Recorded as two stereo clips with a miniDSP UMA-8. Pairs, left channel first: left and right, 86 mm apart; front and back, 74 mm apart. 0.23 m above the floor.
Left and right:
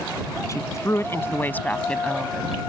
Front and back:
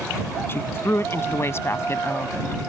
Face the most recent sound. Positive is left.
turn(degrees=-5)